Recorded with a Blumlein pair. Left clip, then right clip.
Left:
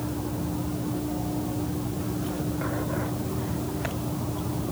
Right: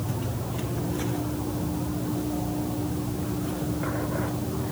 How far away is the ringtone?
No ringtone in this recording.